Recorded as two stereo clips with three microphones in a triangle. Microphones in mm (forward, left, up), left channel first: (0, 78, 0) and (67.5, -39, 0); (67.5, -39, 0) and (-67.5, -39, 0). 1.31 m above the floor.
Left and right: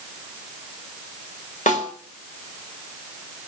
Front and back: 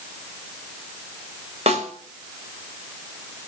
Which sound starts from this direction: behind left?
A snare drum, at 1.7 s.